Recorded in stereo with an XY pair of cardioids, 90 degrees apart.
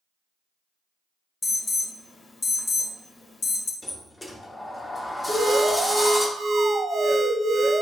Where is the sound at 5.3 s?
65° right, 0.7 m.